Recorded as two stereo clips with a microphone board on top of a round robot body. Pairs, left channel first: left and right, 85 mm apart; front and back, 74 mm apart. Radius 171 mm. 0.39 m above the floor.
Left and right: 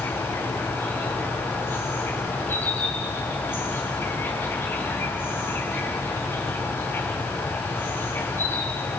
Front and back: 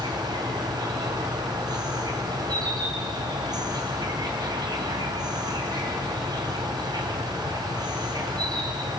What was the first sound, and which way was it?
An insect, 155° left.